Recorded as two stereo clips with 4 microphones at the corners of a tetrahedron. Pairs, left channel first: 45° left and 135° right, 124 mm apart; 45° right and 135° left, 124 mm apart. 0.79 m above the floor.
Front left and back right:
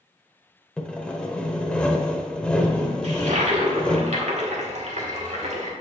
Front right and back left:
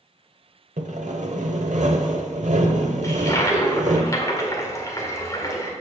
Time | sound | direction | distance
0.8 | sawing | 125° left | 1.0 m
3.0 | a toilet flushing | 110° right | 1.7 m